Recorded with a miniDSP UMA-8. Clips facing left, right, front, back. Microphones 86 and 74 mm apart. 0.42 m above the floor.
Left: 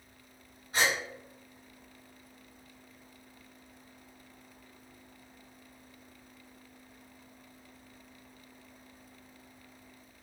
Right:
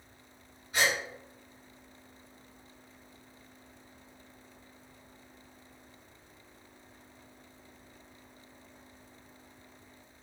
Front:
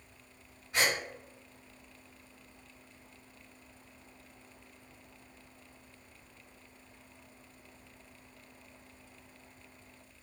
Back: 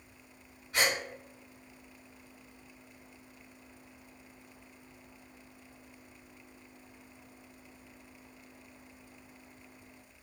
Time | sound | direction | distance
0.7 | a gasp | 75° left | 1.8 m